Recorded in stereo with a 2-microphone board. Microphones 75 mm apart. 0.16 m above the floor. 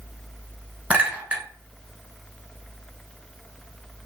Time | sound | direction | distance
0.9 | a clink | 20° right (ahead or behind) | 1.0 m